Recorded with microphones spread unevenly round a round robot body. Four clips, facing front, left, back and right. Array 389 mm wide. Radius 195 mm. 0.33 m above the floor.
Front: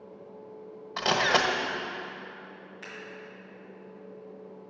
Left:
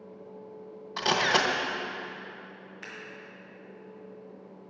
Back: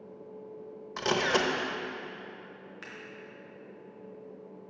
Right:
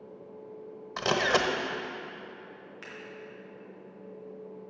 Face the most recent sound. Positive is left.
turn(degrees=-100)